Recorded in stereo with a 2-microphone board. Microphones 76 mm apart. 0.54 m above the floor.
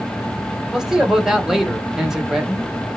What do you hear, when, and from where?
0.7 s a man speaking: 5° right (ahead or behind), 1.6 m